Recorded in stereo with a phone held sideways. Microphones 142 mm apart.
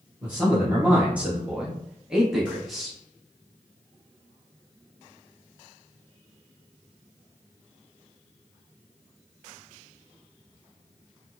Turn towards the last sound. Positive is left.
turn(degrees=0)  # may be behind; listen again after turning